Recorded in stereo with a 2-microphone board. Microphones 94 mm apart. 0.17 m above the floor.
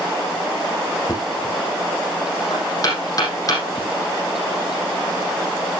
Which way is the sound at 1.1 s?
40° left (ahead or behind).